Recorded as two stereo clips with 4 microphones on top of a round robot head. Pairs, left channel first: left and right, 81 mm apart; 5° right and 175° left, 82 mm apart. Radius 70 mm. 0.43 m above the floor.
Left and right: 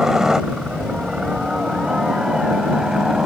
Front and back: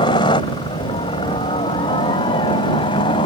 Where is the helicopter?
5° right.